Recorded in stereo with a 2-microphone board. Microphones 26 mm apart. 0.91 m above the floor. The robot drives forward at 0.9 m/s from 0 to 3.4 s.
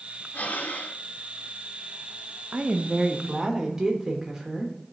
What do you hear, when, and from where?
0.3 s breathing: 70° left (ahead or behind), 0.8 m; by 1.0 s 65° left (ahead or behind), 0.8 m
2.5 s a woman speaking: 40° right (ahead or behind), 0.6 m; by 4.7 s 20° right (ahead or behind), 1.0 m